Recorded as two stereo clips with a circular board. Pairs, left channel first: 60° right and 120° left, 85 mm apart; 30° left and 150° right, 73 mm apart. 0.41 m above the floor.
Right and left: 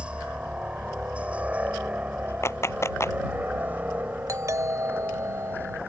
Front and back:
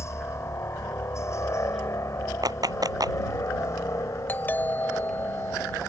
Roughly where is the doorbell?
Left.